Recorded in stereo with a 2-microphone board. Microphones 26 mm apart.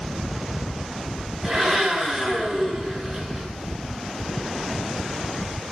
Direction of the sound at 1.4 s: 15° right (ahead or behind).